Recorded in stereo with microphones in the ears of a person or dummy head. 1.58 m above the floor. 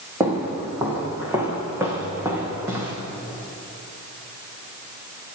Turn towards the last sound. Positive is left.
turn(degrees=-25)  # may be behind; listen again after turning